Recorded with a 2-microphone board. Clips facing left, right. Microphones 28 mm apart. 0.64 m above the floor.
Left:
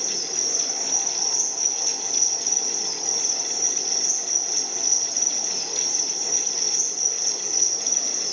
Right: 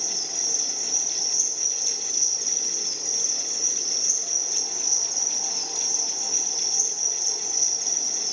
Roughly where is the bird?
I don't hear a bird.